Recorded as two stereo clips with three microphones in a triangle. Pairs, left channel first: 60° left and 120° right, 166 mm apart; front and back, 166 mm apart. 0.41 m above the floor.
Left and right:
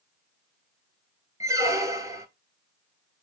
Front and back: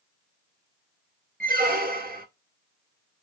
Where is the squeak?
175° left, 0.7 m.